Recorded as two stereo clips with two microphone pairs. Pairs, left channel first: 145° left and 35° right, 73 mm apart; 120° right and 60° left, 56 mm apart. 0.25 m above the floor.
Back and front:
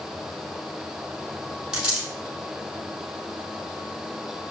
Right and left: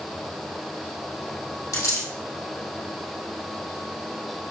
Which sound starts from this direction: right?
A dropped coin, at 1.7 s.